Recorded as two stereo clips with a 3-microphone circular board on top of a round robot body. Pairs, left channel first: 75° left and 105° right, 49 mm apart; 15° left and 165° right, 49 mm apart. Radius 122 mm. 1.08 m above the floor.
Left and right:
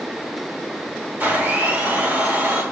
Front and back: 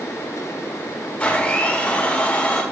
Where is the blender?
55° right, 4 m.